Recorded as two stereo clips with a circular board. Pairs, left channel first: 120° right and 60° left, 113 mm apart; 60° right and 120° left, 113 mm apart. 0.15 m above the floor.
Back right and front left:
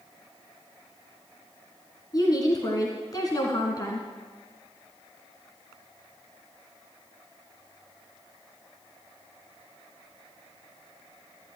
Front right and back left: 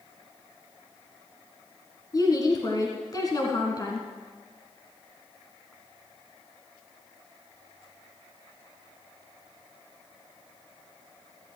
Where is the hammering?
I don't hear hammering.